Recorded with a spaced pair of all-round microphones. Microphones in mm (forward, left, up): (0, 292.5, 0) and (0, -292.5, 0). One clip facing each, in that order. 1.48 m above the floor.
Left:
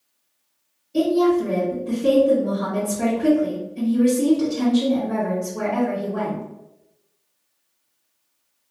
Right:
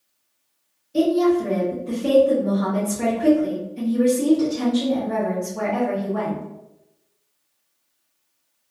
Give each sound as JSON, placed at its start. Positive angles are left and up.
{"t": 0.9, "sound": "a woman speaking", "side_deg": -5, "distance_m": 1.5}